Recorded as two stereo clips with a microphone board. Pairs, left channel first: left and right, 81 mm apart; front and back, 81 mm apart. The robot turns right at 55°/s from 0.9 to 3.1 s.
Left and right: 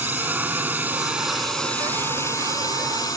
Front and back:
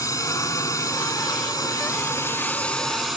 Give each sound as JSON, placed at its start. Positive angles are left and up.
{"t": 0.0, "sound": "a drone", "azimuth_deg": -30}